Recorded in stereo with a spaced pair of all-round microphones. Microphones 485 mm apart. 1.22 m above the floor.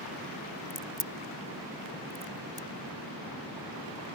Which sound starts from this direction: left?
A crack, at 0.7 s.